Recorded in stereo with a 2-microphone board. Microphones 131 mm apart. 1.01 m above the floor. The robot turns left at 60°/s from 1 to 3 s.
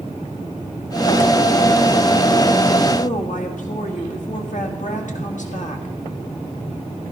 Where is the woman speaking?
70° left (ahead or behind), 1.8 m.